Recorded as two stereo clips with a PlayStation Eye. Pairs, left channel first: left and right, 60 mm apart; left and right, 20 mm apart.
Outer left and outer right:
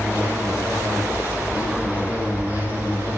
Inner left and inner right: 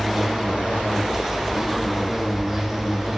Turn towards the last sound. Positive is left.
turn(degrees=-25)  # may be behind; listen again after turning